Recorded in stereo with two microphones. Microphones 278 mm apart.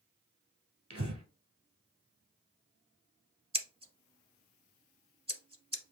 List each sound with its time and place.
0.9 s breathing: 65° right (ahead or behind), 1.6 m
3.5 s scissors: 20° right (ahead or behind), 0.7 m